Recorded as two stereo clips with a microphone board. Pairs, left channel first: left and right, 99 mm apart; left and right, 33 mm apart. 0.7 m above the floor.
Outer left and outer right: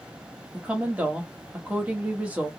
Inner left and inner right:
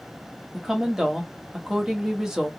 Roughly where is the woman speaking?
Centre.